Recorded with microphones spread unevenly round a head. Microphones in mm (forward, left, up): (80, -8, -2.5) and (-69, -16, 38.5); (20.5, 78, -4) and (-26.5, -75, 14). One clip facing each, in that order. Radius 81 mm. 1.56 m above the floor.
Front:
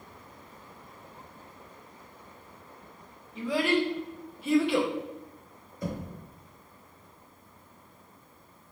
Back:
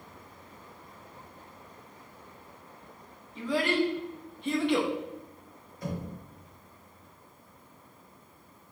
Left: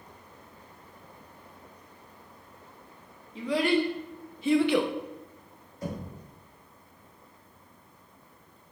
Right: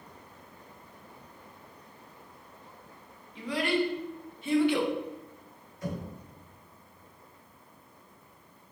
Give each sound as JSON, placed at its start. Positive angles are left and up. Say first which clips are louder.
{"t": 3.4, "sound": "a child speaking", "louder": "front 1 dB, left 3 dB", "azimuth_deg": 90, "distance_m": 1.4}
{"t": 5.8, "sound": "knocking", "louder": "front 1 dB, even", "azimuth_deg": 10, "distance_m": 1.1}